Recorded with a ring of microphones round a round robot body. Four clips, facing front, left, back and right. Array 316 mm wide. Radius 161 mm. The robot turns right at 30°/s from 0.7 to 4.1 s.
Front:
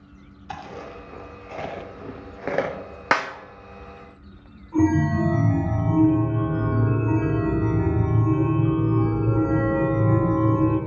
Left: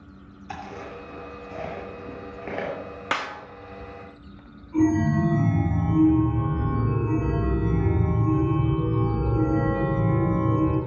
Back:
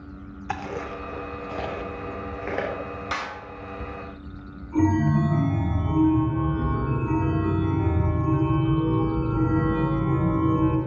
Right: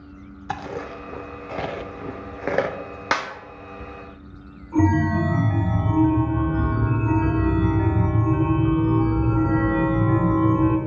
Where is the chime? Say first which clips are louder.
Right 1 dB, front 1 dB; 90° right, 2 m.